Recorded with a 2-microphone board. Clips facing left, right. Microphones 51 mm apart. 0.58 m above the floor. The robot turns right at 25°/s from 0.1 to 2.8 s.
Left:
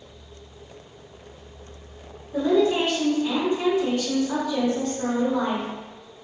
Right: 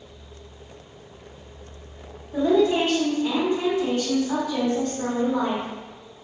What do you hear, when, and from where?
2.3 s a woman speaking: 30° right (ahead or behind), 1.1 m